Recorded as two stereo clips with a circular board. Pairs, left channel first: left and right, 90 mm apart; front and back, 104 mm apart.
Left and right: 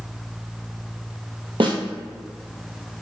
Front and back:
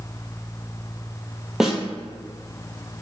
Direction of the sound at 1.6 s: 95° right.